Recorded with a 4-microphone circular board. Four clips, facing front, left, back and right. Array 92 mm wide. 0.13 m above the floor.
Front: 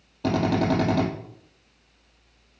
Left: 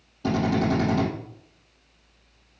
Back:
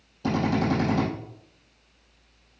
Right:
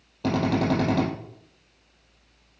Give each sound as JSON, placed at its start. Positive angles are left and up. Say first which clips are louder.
{"t": 0.2, "sound": "a drill", "louder": "even, front 2 dB", "azimuth_deg": -45, "distance_m": 4.0}